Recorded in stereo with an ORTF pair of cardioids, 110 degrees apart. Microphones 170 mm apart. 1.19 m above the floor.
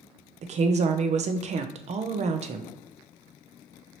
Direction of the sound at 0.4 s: 40° right.